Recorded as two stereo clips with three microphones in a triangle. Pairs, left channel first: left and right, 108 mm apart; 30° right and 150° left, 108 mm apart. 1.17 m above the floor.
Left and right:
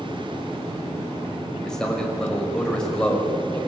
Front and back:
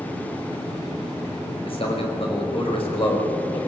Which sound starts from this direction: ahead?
A man speaking, at 1.6 s.